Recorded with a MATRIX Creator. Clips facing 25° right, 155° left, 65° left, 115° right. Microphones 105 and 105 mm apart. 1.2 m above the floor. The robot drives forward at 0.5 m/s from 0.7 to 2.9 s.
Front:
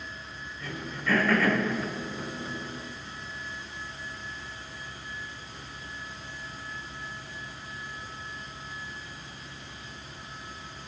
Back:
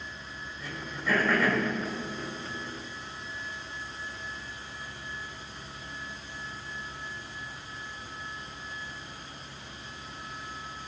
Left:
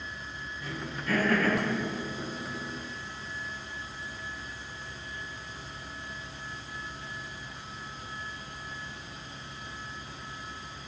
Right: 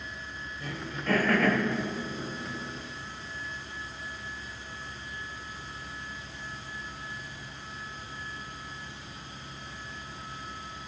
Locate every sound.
0.6 s throat clearing: 125° right, 5.5 m; by 1.6 s 130° right, 5.5 m